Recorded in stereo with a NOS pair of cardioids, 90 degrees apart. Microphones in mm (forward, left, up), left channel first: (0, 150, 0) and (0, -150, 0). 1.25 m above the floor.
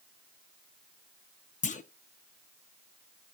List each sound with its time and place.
1.6 s a clunk: 25° left, 0.9 m